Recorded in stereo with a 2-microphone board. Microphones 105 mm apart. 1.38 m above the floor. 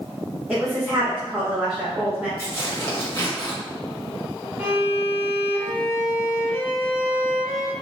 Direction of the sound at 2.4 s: 25° left (ahead or behind).